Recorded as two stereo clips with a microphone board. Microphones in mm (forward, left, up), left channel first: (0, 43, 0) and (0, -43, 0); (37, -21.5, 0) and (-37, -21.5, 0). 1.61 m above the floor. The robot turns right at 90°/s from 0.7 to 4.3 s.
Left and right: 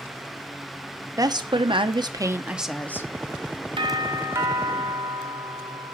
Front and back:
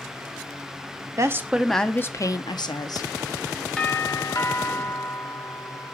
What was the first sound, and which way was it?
A woman speaking, 140° right.